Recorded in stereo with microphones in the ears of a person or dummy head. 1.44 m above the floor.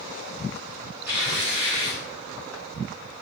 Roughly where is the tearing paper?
Centre.